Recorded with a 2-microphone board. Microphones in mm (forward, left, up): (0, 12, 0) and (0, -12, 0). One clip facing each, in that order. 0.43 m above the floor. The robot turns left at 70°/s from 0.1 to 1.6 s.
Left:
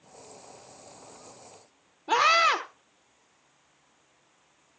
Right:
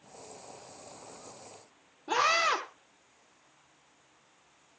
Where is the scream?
30° left (ahead or behind), 0.9 m.